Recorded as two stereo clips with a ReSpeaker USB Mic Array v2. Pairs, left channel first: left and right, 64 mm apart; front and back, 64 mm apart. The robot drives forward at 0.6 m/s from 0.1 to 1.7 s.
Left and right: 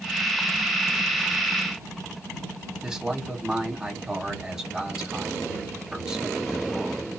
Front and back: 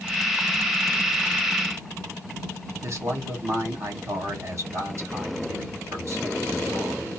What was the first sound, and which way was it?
A man speaking, 165° right.